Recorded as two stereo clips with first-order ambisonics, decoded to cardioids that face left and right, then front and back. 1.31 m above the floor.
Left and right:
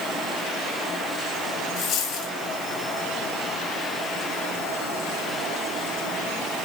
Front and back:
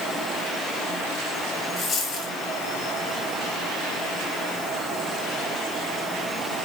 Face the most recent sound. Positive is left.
turn(degrees=45)